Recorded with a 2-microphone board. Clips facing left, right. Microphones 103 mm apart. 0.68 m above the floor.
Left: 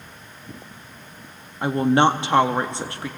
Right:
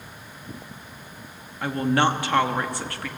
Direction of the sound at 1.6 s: 20° left (ahead or behind).